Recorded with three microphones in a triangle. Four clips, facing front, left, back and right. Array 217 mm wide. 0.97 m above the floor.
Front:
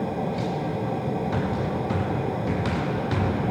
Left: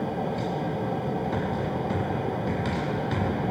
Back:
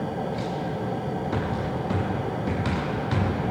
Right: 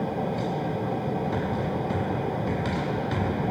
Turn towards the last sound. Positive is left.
No sound to turn to.